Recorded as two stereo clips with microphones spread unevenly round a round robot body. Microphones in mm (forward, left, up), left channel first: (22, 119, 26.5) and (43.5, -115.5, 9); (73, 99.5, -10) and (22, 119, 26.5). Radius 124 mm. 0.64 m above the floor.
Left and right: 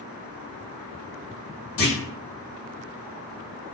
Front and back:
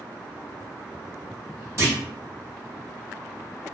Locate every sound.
1.8 s a clunk: 100° left, 1.4 m